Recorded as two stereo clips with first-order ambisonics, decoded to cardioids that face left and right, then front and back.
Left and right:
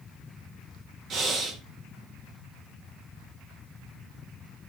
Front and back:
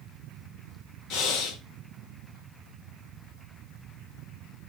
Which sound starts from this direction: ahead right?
Breathing, at 1.1 s.